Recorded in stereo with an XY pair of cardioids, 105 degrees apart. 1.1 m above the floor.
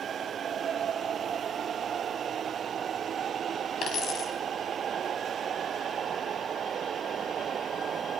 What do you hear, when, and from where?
3.8 s a dropped coin: 60° left, 4.5 m